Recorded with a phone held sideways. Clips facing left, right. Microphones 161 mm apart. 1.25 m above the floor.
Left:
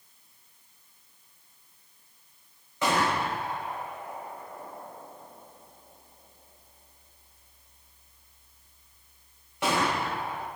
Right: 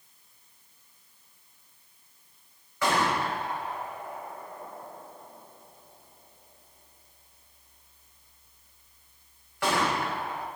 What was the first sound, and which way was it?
A gunshot, 20° left (ahead or behind).